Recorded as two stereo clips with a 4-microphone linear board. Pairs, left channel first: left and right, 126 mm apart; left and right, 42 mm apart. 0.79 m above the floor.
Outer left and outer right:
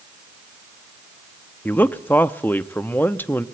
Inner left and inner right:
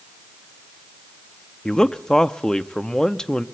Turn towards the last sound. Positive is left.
turn(degrees=15)  # may be behind; listen again after turning